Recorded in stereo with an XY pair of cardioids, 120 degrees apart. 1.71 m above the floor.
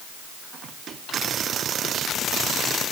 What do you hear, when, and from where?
Only background noise.